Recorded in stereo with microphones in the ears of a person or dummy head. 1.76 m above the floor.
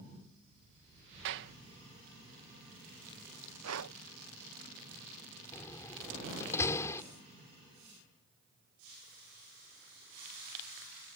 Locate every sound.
1.2 s a clap: 65° right (ahead or behind)
3.6 s breathing: 85° right
5.5 s a door slam: 15° left (ahead or behind)